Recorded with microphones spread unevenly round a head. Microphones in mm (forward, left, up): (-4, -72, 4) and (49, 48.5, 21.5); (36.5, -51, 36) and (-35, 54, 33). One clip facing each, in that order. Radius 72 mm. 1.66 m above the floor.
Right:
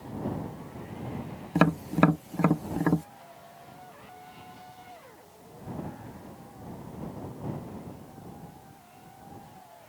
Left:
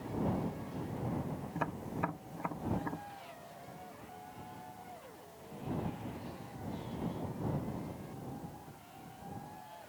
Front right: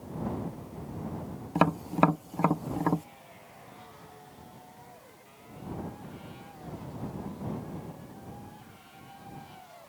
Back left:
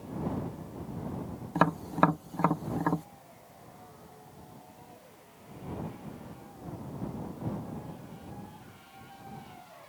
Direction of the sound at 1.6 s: 135° right.